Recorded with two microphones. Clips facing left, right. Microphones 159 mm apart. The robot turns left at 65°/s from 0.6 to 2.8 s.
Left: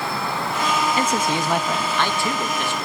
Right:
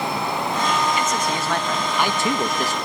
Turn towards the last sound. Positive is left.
turn(degrees=-65)